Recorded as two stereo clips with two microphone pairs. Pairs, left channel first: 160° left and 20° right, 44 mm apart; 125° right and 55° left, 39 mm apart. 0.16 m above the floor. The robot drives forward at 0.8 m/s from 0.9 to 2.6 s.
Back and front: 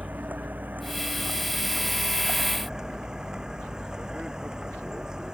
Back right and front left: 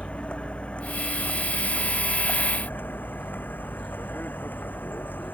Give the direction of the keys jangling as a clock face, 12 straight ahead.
No keys jangling in this recording.